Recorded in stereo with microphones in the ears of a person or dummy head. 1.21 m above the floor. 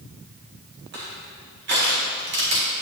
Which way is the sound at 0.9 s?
55° right (ahead or behind).